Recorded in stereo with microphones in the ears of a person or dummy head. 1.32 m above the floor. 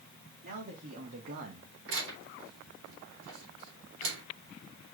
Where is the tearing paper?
85° right, 3.5 m.